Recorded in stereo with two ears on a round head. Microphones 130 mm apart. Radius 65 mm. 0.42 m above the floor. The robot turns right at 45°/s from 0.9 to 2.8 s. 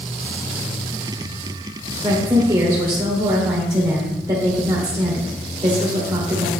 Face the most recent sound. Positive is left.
turn(degrees=-125)